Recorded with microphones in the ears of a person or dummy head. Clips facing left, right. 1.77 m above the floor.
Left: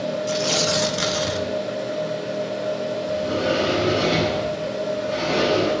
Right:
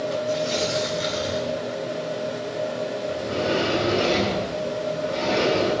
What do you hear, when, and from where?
0.3 s tearing paper: 75° left (ahead or behind), 1.7 m
3.1 s a sliding door: 50° left (ahead or behind), 10 m